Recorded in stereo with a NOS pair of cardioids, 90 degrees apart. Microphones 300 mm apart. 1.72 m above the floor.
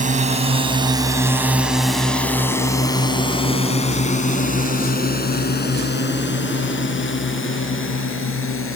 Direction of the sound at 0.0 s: 25° right.